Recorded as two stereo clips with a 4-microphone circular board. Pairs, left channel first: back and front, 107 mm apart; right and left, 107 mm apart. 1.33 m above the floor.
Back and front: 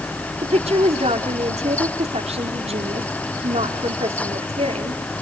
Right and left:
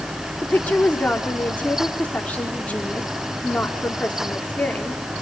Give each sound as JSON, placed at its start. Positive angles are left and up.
{"t": 0.4, "sound": "a woman speaking", "azimuth_deg": -15, "distance_m": 4.0}